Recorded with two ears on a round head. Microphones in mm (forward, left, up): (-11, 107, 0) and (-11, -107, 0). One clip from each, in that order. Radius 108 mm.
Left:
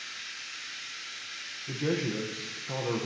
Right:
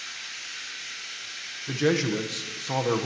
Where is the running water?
25° right (ahead or behind), 6.5 m.